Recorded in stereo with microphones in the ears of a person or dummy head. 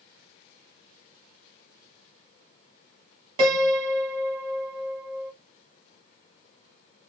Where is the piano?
30° right (ahead or behind), 1.4 m.